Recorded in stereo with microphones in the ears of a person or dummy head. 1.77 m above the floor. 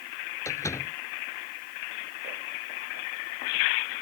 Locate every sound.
0.5 s a door slam: 15° left (ahead or behind)